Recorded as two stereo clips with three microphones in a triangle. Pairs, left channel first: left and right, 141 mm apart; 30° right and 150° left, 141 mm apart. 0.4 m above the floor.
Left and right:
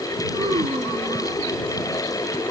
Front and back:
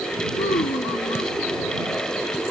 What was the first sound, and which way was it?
A child speaking, 40° right.